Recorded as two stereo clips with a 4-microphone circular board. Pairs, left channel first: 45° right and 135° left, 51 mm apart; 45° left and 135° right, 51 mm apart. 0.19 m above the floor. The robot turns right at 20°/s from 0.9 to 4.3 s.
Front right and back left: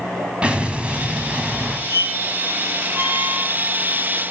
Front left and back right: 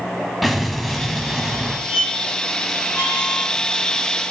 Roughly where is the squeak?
Behind left.